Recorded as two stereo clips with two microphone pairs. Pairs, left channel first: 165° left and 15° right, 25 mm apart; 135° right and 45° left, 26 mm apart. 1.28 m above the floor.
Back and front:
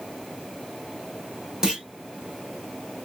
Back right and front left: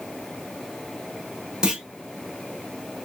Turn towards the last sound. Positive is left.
turn(degrees=20)